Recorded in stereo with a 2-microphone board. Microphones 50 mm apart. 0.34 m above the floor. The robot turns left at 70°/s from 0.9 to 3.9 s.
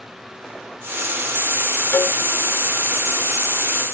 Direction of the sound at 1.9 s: 45° left (ahead or behind).